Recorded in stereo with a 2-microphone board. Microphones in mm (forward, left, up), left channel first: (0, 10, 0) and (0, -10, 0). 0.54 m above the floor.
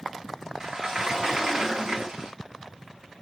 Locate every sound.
0.6 s a sliding door: 30° right (ahead or behind), 0.6 m